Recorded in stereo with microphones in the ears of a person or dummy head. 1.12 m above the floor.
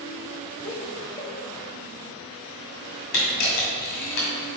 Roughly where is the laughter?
Centre.